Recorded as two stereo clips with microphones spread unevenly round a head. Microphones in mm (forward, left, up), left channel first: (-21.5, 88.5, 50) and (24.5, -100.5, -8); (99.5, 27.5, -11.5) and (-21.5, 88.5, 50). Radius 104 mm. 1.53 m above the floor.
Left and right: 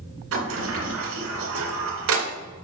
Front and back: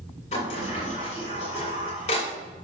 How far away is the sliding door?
About 2 m.